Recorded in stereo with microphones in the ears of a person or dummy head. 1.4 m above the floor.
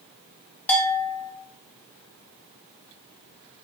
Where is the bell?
10° left (ahead or behind), 1.6 m.